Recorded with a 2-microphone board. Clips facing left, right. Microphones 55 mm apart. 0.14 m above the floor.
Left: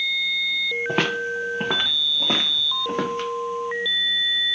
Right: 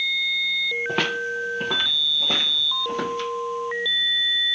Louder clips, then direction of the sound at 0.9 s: Left 1 dB; 5° left (ahead or behind).